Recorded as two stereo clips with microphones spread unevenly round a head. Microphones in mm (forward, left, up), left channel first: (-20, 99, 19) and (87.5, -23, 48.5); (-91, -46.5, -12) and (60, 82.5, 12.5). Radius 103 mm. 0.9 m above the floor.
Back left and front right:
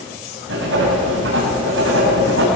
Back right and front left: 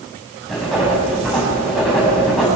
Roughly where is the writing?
Ahead right.